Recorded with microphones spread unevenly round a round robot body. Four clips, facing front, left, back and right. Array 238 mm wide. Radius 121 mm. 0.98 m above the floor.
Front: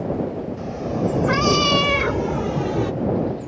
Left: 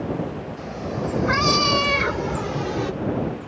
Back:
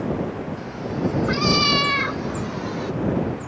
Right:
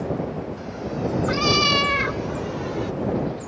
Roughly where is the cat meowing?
Ahead.